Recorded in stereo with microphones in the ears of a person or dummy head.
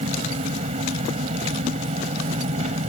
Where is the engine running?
35° right (ahead or behind).